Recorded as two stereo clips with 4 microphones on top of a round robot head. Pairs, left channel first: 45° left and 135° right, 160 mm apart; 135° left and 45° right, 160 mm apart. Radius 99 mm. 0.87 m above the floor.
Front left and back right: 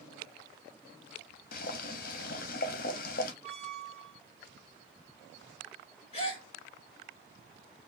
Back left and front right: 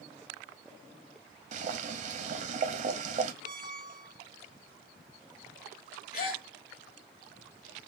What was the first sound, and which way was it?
Boiling, 5° left.